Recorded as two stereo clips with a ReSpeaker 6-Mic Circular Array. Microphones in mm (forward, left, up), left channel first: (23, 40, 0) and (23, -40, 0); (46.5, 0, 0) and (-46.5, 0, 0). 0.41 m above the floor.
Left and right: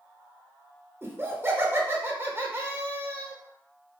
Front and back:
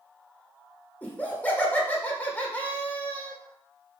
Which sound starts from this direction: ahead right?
Laughter, at 1.0 s.